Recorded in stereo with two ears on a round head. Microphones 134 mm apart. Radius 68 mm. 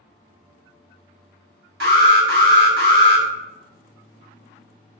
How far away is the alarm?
About 1.0 m.